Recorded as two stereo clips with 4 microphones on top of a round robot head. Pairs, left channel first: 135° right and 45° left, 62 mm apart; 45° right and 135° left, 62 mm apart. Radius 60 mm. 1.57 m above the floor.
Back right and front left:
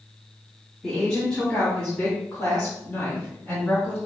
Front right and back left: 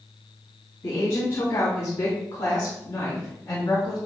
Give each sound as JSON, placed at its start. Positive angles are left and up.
{"t": 0.8, "sound": "a woman speaking", "azimuth_deg": -55, "distance_m": 2.5}